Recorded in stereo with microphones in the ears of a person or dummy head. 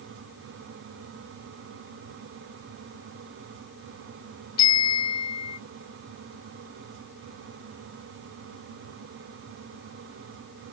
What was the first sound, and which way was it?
A bicycle bell, 25° left (ahead or behind).